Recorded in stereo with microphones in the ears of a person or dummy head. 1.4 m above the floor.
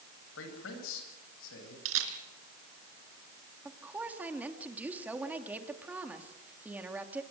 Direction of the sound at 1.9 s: 75° right (ahead or behind).